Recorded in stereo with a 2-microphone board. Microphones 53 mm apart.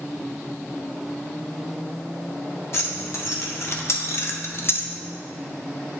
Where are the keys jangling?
50° left (ahead or behind), 1.4 m; by 4.9 s 40° left (ahead or behind), 0.5 m.